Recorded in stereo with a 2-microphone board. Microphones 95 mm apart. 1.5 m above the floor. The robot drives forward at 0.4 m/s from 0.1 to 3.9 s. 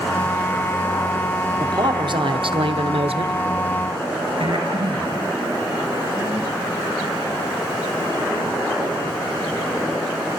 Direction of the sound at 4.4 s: 65° right (ahead or behind).